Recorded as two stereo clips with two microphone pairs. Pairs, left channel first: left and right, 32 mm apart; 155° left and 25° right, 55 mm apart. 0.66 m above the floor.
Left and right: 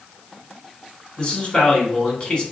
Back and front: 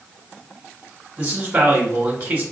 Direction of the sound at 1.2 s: 30° left.